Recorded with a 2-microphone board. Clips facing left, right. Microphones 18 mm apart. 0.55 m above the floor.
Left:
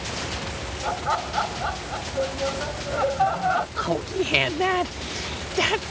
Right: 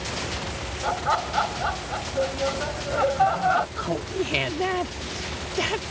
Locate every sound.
0.8 s laughter: 5° right (ahead or behind)
3.8 s laughter: 20° left (ahead or behind)